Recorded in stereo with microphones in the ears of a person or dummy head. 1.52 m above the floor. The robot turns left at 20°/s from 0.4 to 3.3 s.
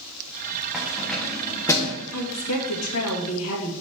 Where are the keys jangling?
Centre (ahead or behind), 1.2 m; by 2.0 s 20° left (ahead or behind), 1.2 m.